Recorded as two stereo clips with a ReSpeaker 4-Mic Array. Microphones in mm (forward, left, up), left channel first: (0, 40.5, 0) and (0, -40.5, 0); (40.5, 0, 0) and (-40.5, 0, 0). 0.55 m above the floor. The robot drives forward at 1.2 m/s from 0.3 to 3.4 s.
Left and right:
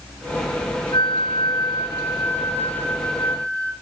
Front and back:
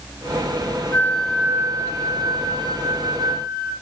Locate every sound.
0.9 s a flute: 60° left, 0.8 m; by 3.7 s 165° left, 2.5 m